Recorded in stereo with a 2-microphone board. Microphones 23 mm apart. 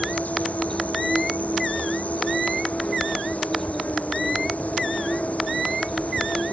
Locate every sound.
0.0 s an insect: 80° left